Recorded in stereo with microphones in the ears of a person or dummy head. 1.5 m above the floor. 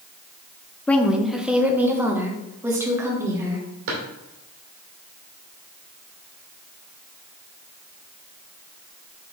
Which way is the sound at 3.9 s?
70° right (ahead or behind).